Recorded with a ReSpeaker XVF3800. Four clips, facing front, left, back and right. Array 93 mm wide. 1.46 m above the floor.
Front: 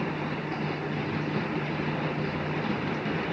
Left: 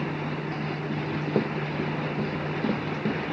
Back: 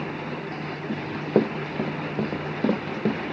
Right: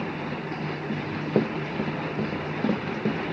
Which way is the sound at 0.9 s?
165° right.